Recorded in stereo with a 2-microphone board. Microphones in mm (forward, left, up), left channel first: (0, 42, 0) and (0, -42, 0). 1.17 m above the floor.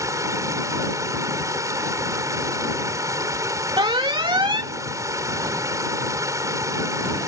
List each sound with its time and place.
0.0 s running water: 40° right (ahead or behind)
3.8 s an alarm: 70° right (ahead or behind)